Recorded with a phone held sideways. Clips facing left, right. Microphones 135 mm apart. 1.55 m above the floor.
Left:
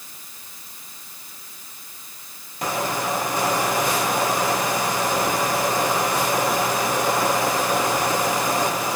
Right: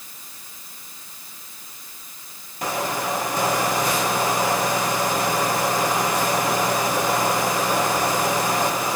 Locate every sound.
Only background noise.